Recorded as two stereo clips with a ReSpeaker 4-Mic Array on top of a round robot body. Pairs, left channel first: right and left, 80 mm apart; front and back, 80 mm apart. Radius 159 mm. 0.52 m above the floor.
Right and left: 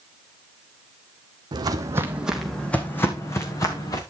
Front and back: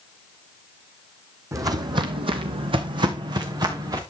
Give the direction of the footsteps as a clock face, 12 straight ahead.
8 o'clock.